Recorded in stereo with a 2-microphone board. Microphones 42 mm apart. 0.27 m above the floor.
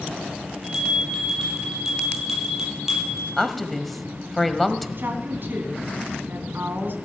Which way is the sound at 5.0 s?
55° right (ahead or behind).